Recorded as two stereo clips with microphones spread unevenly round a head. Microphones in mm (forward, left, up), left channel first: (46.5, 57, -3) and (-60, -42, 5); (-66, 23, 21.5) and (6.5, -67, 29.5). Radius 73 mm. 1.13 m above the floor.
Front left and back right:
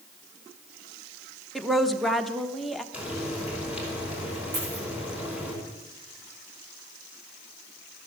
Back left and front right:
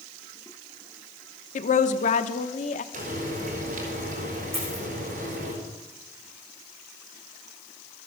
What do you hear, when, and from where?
1.6 s a woman speaking: 130° left, 1.1 m
2.9 s frying: 55° right, 5.5 m
4.5 s a dropped coin: 120° right, 10 m